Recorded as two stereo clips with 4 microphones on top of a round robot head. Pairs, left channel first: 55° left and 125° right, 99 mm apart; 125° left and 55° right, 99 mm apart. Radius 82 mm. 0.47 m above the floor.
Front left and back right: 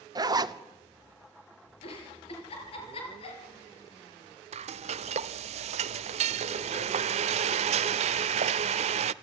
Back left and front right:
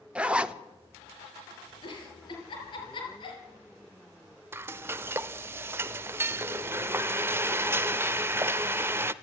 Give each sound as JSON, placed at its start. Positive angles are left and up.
{"t": 0.1, "sound": "a zipper", "azimuth_deg": -130, "distance_m": 1.2}
{"t": 1.8, "sound": "a giggle", "azimuth_deg": 85, "distance_m": 6.0}
{"t": 4.5, "sound": "frying", "azimuth_deg": -125, "distance_m": 0.5}